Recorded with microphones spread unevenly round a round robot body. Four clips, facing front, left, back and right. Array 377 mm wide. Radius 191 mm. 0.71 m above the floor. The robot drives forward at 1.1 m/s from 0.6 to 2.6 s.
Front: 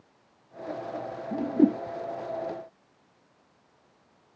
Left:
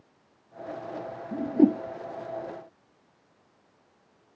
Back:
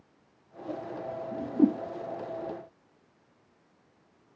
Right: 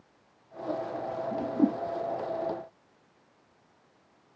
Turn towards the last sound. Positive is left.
turn(degrees=175)